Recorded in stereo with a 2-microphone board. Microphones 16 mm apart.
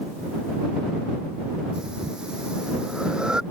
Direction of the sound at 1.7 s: 75° right (ahead or behind).